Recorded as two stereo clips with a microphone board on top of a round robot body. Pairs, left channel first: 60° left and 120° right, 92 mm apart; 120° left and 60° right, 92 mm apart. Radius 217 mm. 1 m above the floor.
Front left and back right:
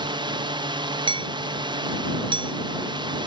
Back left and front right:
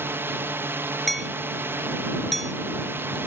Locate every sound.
0.0 s a drone: 120° right
1.1 s hammering: 150° right